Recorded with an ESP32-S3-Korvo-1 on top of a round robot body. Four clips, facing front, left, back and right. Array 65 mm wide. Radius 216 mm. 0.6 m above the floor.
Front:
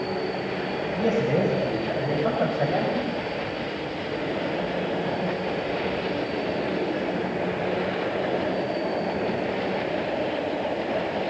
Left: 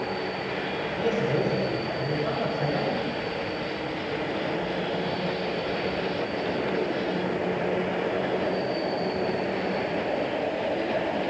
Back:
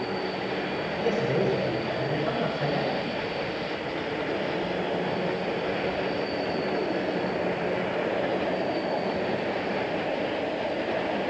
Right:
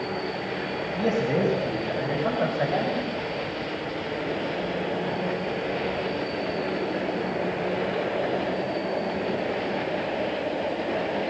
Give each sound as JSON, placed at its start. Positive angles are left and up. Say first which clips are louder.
{"t": 0.9, "sound": "a man speaking", "louder": "right 2 dB, front 3 dB", "azimuth_deg": -15, "distance_m": 5.0}